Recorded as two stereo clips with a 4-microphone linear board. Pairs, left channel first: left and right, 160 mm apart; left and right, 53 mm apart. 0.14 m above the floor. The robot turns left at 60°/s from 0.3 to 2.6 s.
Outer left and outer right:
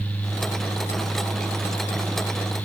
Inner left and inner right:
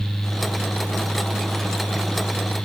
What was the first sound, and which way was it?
Only background noise.